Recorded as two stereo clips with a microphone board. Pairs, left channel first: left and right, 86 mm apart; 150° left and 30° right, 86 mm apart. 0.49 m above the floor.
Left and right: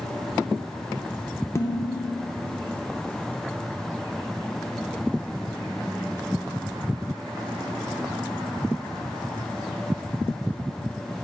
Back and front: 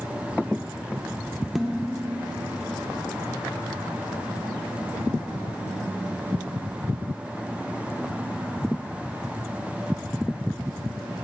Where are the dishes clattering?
55° left, 0.7 m.